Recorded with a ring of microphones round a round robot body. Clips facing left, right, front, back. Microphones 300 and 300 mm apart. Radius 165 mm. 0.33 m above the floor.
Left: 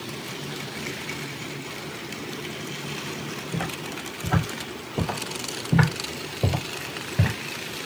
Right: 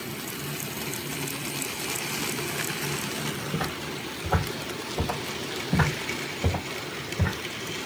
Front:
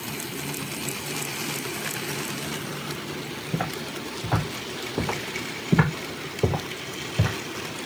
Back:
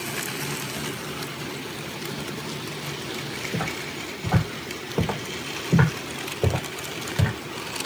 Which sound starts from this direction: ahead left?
Footsteps, at 3.5 s.